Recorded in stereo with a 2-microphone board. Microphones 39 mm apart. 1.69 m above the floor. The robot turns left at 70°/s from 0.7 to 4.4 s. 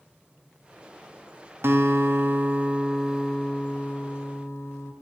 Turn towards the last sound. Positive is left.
turn(degrees=95)